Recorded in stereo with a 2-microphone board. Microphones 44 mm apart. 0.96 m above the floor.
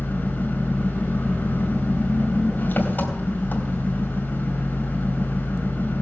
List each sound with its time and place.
0.0 s an engine running: 45° left (ahead or behind), 3.5 m